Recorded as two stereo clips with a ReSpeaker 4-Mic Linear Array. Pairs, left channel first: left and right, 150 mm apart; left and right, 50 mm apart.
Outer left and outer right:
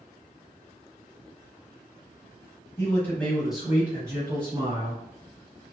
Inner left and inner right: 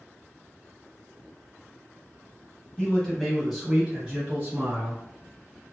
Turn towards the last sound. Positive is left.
turn(degrees=-35)  # may be behind; listen again after turning